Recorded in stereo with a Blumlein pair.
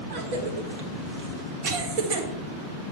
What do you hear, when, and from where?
0.1 s a cough: 45° right, 1.6 m